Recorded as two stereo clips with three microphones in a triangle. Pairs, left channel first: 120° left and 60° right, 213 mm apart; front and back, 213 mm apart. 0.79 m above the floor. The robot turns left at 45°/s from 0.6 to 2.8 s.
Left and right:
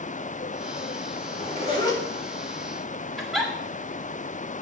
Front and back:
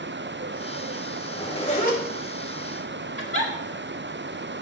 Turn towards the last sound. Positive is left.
turn(degrees=-150)